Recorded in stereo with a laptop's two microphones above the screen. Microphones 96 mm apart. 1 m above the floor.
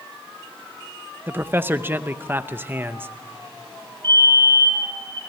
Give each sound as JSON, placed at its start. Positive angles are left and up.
{"t": 1.3, "sound": "a man speaking", "side_deg": -25, "distance_m": 0.6}
{"t": 4.0, "sound": "a fire alarm", "side_deg": -55, "distance_m": 5.0}